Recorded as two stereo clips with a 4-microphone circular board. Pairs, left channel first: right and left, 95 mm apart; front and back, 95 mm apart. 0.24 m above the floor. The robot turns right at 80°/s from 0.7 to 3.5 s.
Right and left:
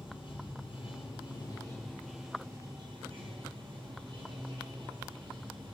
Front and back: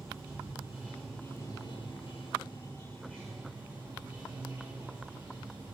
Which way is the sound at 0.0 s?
120° right.